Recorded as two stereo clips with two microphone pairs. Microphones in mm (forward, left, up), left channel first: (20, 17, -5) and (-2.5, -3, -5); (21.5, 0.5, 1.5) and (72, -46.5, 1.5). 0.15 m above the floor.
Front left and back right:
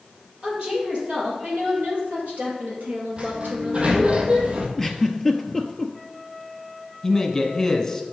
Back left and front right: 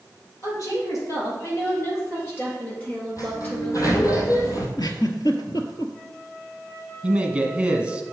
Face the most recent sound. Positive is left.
turn(degrees=-5)